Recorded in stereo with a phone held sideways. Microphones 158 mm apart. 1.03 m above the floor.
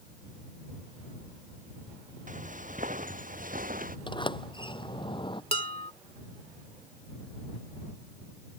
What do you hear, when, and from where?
2.3 s footsteps: 60° right (ahead or behind); by 4.0 s 65° right (ahead or behind)
4.1 s a sliding door: 30° left (ahead or behind)
5.5 s dishes clattering: 40° left (ahead or behind)